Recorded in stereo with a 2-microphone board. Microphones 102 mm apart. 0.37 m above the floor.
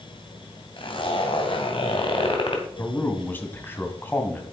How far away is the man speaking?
About 2.5 m.